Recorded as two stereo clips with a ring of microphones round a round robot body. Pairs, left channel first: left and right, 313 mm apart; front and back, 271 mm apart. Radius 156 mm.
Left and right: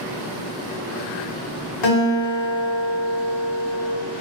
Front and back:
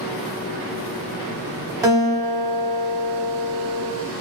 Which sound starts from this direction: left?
A guitar, at 1.8 s.